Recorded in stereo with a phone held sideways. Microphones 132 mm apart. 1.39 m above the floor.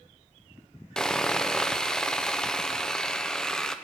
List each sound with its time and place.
1.0 s sawing: 5° left (ahead or behind), 0.6 m